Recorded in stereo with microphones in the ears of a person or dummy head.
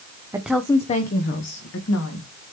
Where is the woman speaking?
15° right (ahead or behind), 0.7 m; by 2.3 s 75° left (ahead or behind), 2 m.